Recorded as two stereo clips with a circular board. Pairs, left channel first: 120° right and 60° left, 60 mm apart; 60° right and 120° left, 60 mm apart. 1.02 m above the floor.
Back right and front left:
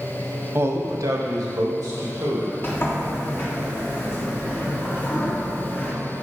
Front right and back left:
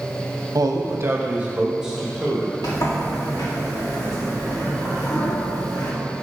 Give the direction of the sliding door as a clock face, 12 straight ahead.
2 o'clock.